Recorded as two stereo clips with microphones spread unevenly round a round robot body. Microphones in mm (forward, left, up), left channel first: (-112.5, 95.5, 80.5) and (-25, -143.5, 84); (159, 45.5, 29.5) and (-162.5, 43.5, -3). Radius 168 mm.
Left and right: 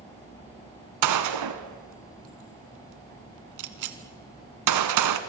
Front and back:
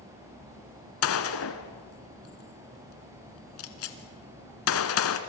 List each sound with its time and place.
1.0 s a gunshot: 50° right, 1.4 m